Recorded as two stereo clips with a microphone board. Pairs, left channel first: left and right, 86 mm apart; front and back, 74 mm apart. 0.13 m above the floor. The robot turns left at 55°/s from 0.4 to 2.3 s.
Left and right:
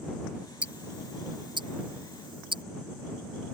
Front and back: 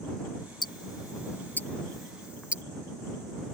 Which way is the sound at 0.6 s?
15° right.